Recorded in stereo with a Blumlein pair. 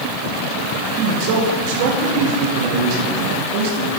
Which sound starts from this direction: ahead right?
A man speaking, at 1.0 s.